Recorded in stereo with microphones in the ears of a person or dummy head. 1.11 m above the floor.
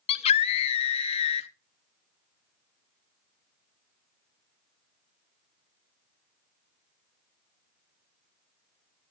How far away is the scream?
About 0.8 m.